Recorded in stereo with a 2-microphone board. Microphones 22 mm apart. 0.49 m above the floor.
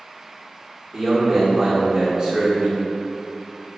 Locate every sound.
0.9 s a man speaking: 30° right (ahead or behind), 0.9 m